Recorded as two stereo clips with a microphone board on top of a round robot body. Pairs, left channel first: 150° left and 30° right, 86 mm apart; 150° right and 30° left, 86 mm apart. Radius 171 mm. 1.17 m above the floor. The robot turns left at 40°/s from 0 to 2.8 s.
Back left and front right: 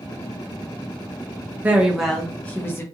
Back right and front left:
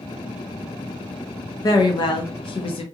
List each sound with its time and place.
1.6 s a woman speaking: 105° right, 0.6 m; by 2.8 s 150° right, 0.6 m